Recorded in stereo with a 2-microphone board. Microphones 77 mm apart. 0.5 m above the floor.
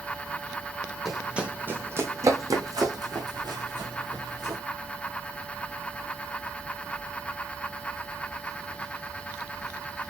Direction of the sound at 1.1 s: 5° right (ahead or behind).